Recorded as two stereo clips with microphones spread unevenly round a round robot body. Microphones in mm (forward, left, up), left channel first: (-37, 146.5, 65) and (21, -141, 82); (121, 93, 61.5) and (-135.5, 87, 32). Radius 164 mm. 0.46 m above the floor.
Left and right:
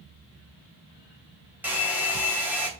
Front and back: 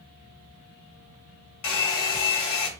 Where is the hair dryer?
5° left, 3 m.